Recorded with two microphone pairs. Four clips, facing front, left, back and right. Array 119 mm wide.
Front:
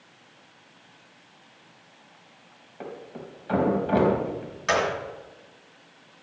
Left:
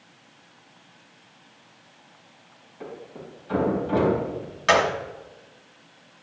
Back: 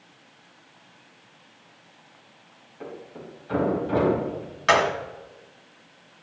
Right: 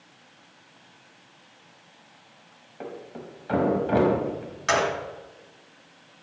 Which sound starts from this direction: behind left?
A gunshot, at 4.7 s.